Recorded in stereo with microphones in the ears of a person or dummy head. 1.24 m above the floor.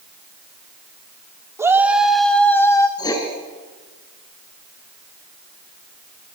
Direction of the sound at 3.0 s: 20° left (ahead or behind).